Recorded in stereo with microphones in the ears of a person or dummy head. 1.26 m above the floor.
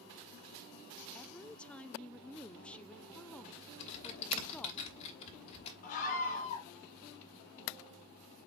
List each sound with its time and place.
1.1 s a woman speaking: 5° left (ahead or behind), 0.5 m
3.8 s typing on a keyboard: 30° left (ahead or behind), 2.5 m
5.8 s a scream: 40° left (ahead or behind), 2.5 m